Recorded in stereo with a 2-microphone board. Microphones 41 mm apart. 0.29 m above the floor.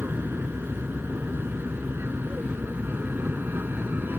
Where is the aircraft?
60° right (ahead or behind); by 4.2 s 55° right (ahead or behind).